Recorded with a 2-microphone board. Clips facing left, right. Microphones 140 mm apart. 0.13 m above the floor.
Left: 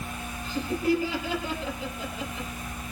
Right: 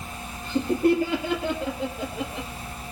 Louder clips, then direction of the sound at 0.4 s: Right 5 dB; 60° right (ahead or behind).